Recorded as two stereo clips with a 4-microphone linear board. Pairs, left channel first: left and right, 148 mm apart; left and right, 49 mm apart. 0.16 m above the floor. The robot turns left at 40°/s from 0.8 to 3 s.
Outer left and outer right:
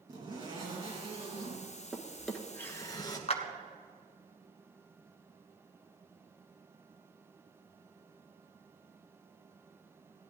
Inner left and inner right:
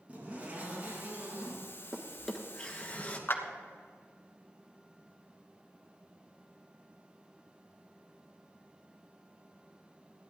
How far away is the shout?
I don't hear a shout.